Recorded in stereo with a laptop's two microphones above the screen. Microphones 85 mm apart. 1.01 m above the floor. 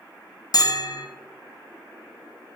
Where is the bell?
50° left (ahead or behind), 0.7 m.